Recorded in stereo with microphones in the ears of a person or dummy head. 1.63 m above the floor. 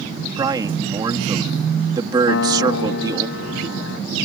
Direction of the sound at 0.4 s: 20° right (ahead or behind).